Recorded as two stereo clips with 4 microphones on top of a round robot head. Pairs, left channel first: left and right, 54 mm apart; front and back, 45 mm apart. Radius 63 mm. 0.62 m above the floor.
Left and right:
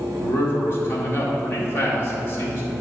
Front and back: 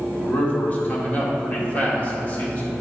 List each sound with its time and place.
0.2 s a man speaking: 55° left, 2.0 m